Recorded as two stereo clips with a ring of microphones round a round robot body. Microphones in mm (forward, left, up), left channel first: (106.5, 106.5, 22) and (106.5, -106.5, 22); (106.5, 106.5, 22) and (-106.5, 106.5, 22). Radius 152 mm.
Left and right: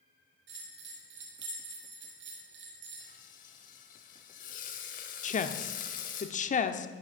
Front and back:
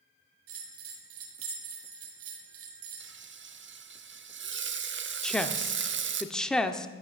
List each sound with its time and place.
0.5 s a bell: 140° right, 1.4 m
3.0 s frying: 150° left, 0.9 m
5.2 s a woman speaking: 85° left, 0.9 m